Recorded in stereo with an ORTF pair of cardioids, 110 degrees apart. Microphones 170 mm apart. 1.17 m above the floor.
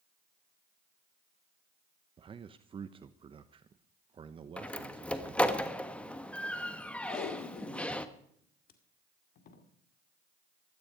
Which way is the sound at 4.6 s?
5° left.